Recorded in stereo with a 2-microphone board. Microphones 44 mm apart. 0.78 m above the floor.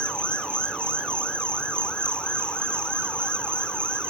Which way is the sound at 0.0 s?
25° left (ahead or behind).